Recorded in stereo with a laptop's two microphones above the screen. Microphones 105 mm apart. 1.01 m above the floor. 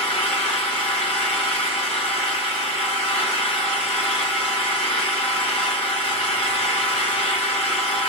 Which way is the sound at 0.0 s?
80° left.